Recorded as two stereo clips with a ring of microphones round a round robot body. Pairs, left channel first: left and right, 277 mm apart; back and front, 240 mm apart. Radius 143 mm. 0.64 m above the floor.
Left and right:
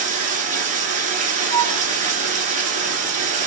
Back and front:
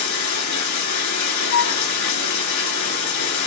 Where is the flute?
165° left, 0.9 m.